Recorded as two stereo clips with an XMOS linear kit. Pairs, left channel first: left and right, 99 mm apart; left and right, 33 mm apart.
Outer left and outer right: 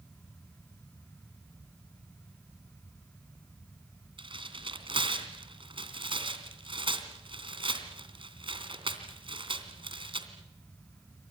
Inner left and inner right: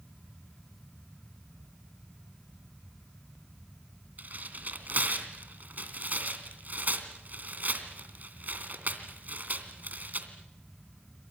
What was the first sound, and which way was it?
Tearing paper, 55° right (ahead or behind).